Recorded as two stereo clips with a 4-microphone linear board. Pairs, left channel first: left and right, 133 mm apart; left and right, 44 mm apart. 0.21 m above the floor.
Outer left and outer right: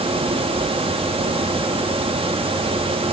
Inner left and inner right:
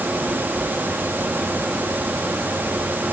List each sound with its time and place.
Only background noise.